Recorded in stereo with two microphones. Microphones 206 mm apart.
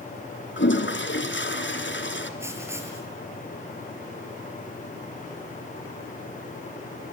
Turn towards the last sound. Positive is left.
turn(degrees=-10)  # may be behind; listen again after turning